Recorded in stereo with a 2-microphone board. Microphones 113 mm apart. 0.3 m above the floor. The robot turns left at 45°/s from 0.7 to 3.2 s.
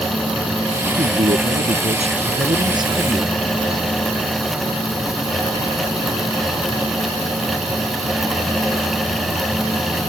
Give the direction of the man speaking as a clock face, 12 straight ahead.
2 o'clock.